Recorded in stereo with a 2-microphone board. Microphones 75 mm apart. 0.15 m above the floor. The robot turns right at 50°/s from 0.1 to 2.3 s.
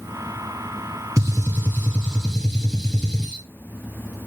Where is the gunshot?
60° right, 2 m; by 3.4 s straight ahead, 2 m.